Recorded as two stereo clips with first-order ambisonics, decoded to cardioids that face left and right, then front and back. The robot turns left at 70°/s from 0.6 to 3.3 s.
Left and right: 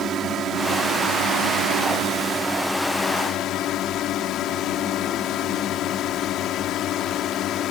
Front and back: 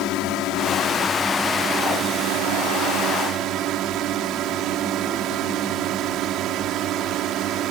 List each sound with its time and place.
0.0 s a drone: 35° right; by 7.7 s 135° left